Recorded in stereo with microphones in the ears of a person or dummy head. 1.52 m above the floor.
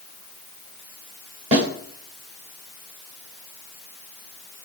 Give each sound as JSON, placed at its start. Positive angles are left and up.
{"t": 1.5, "sound": "a snare drum", "side_deg": -40, "distance_m": 10.0}